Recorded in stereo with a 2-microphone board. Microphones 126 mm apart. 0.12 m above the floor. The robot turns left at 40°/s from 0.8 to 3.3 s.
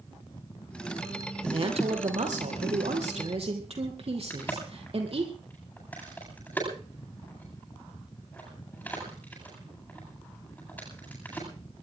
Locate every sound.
1.4 s a woman speaking: 45° right, 4 m; by 5.3 s 120° right, 4 m
4.3 s a crack: 15° left (ahead or behind), 9.5 m